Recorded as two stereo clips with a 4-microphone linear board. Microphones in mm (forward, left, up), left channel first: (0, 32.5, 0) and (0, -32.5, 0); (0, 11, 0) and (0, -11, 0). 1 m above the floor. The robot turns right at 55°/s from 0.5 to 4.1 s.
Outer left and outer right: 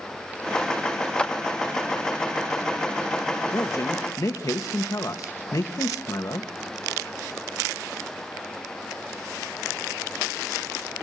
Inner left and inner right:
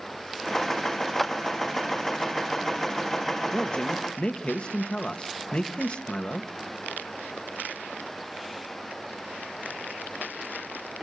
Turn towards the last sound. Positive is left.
turn(degrees=85)